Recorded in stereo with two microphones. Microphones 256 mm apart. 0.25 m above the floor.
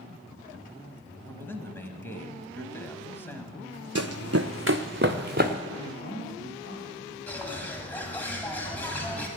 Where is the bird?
5° left (ahead or behind), 1.7 m.